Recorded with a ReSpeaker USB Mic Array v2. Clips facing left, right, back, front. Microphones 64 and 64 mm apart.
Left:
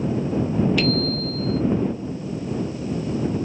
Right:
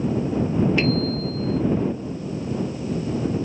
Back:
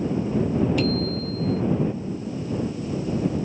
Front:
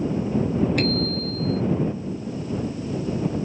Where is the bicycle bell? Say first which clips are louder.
Even, even; 30° right.